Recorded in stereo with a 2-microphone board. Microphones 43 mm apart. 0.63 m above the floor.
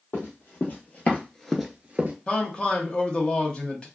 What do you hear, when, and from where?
0.1 s running footsteps: 50° left (ahead or behind), 1.4 m; by 2.1 s 40° right (ahead or behind), 0.7 m
2.3 s a man speaking: 20° left (ahead or behind), 0.8 m